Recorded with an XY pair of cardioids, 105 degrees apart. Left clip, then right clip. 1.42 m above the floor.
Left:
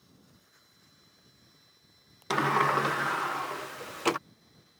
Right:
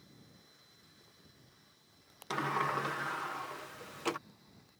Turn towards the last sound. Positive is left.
turn(degrees=50)